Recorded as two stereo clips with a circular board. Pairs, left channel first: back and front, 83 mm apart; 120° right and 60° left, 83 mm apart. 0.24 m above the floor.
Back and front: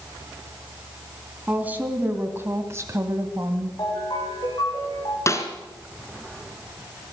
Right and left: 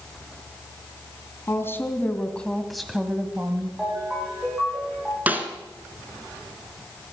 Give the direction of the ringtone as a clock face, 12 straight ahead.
7 o'clock.